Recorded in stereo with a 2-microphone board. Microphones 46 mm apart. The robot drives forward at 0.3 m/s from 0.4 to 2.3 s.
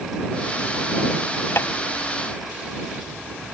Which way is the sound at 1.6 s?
65° left (ahead or behind).